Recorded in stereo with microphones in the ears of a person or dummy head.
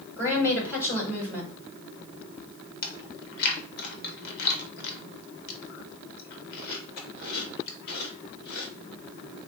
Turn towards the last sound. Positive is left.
turn(degrees=55)  # may be behind; listen again after turning